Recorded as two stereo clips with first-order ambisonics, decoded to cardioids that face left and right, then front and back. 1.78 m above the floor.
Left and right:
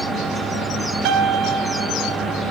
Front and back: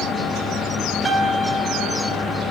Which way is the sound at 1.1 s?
105° right.